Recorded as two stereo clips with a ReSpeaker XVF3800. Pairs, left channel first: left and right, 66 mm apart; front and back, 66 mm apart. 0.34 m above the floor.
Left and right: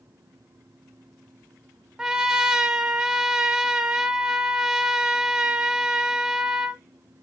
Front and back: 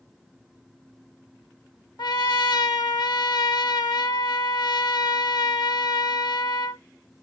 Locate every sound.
2.0 s a trumpet: 10° right, 0.6 m